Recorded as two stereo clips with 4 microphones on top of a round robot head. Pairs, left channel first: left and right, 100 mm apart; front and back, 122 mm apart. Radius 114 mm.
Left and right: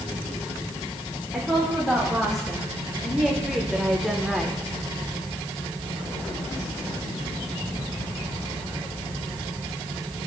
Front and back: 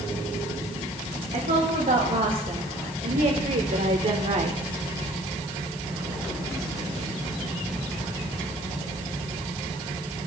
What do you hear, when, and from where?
1.3 s a woman speaking: straight behind, 3 m